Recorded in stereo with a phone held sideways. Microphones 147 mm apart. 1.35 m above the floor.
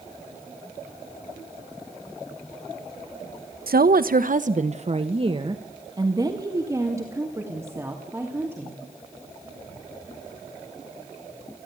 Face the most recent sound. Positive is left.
turn(degrees=-15)  # may be behind; listen again after turning